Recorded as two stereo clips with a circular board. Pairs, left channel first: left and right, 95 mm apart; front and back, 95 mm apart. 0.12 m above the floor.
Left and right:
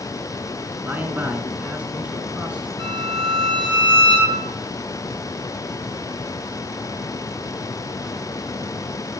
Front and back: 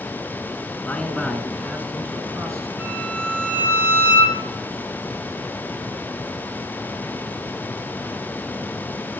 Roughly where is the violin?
Right.